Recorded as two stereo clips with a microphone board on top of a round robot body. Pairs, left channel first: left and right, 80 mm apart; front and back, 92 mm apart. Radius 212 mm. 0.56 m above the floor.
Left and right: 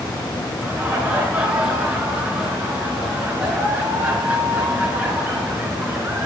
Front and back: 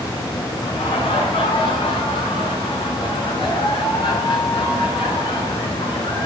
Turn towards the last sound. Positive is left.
turn(degrees=-20)